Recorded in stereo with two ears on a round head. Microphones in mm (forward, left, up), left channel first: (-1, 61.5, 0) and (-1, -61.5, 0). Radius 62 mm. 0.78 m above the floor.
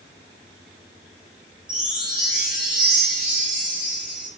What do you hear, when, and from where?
1.7 s a chime: 5° right (ahead or behind), 0.7 m